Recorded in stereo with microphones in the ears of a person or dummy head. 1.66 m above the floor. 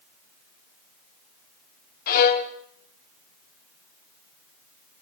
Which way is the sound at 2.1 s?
50° left (ahead or behind).